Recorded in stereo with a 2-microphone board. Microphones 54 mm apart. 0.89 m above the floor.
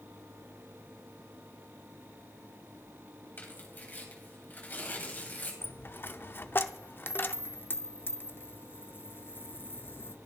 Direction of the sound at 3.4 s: 35° left (ahead or behind).